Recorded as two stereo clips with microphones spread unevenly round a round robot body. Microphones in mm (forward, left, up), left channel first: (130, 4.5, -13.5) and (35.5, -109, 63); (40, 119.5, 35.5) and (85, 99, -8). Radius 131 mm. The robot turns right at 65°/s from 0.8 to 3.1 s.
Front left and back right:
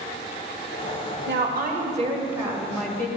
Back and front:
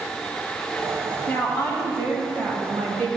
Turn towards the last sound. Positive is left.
turn(degrees=5)